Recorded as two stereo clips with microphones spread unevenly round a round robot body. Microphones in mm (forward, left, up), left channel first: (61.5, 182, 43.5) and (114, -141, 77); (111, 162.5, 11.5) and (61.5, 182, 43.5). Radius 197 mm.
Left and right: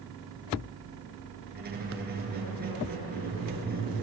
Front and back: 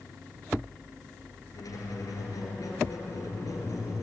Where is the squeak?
20° right, 7 m.